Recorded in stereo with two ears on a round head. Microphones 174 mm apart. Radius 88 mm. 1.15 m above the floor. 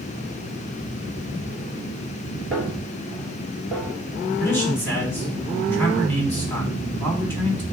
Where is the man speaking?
10° left (ahead or behind), 3 m.